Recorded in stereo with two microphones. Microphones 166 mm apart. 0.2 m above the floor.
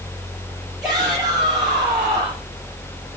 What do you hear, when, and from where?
0.8 s a shout: centre (ahead or behind), 5.5 m